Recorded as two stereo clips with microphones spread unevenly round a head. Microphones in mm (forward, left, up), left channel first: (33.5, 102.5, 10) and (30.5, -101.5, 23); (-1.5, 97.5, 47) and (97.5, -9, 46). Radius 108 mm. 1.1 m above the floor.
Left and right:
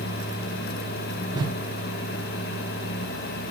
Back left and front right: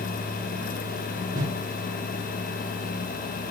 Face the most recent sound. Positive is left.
turn(degrees=-30)